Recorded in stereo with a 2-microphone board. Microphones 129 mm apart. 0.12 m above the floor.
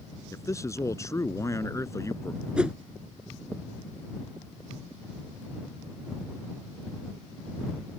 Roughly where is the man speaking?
Left.